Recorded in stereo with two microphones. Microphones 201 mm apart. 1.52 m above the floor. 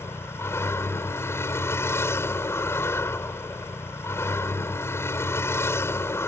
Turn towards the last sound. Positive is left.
turn(degrees=15)  # may be behind; listen again after turning